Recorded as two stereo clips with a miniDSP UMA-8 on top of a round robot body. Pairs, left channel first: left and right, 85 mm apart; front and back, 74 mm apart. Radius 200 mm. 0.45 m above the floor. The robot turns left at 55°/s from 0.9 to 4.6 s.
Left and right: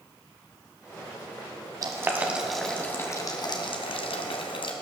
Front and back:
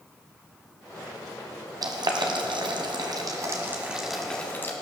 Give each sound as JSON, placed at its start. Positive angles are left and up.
{"t": 1.8, "sound": "boiling", "azimuth_deg": -140, "distance_m": 1.6}